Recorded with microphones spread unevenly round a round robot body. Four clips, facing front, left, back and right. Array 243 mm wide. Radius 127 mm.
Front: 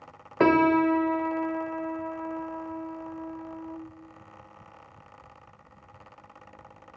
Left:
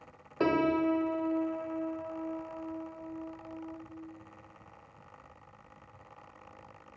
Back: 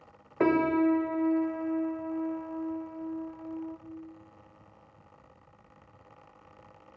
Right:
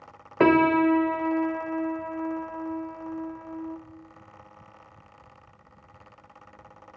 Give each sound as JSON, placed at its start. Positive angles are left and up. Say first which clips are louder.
{"t": 0.4, "sound": "a piano", "louder": "right 8 dB, front 4 dB", "azimuth_deg": -50, "distance_m": 0.6}